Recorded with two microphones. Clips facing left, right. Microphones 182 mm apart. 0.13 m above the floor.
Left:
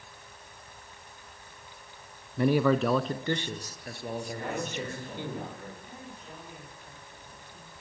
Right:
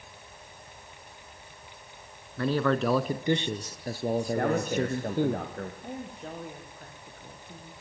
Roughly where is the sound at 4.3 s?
Right.